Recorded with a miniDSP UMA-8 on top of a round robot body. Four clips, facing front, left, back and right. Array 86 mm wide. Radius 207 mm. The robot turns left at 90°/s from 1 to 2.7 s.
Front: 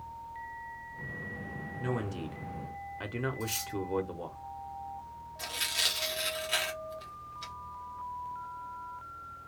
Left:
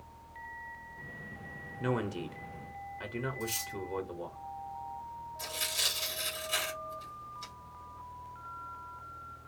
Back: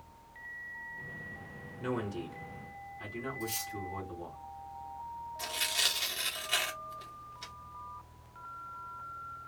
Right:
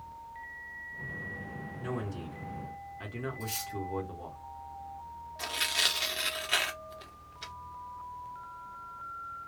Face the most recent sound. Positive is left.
turn(degrees=-90)